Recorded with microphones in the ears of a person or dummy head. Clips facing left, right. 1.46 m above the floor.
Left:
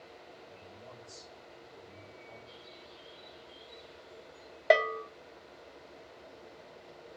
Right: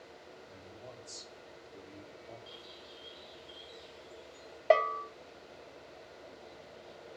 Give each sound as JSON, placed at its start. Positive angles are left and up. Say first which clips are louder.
{"t": 0.5, "sound": "a man speaking", "louder": "right 1 dB", "side_deg": -80, "distance_m": 4.0}
{"t": 2.5, "sound": "a bird", "louder": "even", "side_deg": -75, "distance_m": 2.0}
{"t": 4.7, "sound": "a bell", "louder": "left 1 dB", "side_deg": 20, "distance_m": 0.5}